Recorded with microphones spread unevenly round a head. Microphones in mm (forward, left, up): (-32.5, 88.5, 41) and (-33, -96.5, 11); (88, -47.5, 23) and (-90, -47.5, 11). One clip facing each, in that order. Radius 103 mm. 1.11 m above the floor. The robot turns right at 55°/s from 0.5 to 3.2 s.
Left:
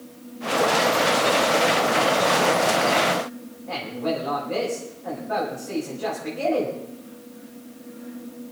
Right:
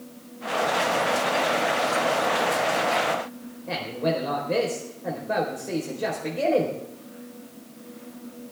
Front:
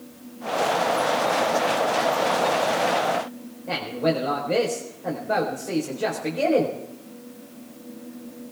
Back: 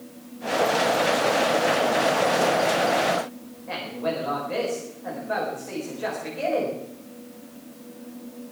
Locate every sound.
3.7 s a man speaking: 40° right, 4.5 m